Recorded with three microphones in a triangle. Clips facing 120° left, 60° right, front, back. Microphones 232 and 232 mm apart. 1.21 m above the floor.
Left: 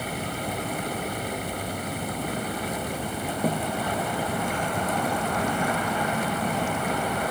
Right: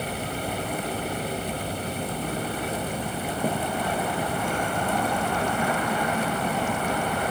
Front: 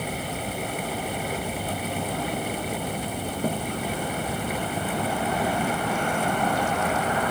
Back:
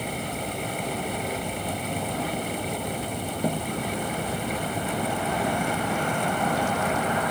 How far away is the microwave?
No microwave in this recording.